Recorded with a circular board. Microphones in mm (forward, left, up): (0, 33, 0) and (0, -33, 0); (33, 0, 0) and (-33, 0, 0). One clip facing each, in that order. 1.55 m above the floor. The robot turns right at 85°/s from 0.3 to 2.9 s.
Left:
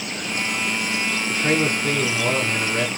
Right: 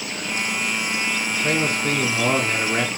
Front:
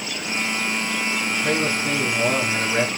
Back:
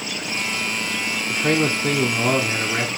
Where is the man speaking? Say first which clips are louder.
Left 3 dB, back 4 dB; 145° left, 0.8 m; by 2.9 s 80° right, 0.8 m.